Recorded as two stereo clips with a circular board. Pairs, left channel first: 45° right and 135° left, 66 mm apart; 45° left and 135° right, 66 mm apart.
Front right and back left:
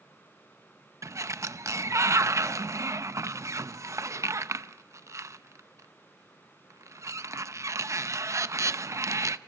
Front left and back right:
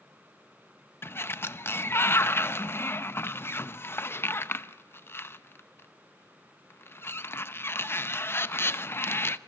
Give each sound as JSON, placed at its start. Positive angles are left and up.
{"t": 1.0, "sound": "a sliding door", "azimuth_deg": 95, "distance_m": 0.6}